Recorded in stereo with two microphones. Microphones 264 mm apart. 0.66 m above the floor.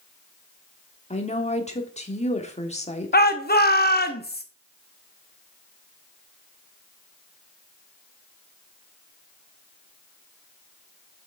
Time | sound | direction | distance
1.1 | a woman speaking | 25° left (ahead or behind) | 1.3 m
3.1 | a shout | 35° left (ahead or behind) | 0.8 m